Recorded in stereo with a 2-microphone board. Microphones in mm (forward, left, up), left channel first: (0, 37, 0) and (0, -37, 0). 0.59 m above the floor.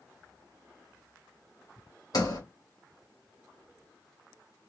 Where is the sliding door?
60° left (ahead or behind), 2.0 m.